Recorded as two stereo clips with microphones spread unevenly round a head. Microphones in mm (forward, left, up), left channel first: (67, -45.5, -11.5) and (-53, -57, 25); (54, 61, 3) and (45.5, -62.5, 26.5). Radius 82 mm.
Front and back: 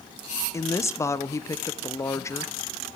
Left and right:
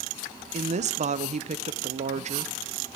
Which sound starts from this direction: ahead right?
A woman speaking, at 0.5 s.